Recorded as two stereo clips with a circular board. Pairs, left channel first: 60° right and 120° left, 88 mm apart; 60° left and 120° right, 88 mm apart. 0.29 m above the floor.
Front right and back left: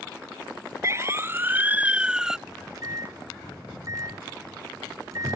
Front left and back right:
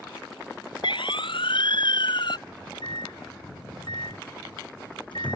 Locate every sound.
0.8 s a siren: 65° left; by 2.4 s 35° left
2.5 s a microwave: 75° left